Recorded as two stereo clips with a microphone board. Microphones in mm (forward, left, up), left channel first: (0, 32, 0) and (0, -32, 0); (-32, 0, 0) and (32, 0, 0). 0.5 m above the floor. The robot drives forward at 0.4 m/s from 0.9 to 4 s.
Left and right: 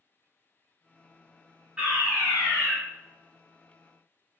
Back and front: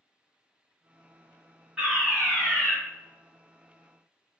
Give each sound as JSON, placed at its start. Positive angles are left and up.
{"t": 1.8, "sound": "a fire alarm", "azimuth_deg": -65, "distance_m": 1.6}